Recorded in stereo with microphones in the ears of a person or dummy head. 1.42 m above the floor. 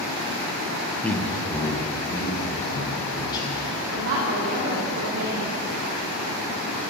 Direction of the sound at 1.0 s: 5° left (ahead or behind).